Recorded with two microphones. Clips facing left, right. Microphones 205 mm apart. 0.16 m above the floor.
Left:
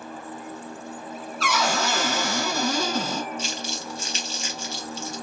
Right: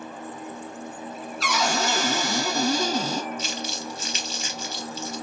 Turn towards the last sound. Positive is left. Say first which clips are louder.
# even
turn(degrees=30)  # may be behind; listen again after turning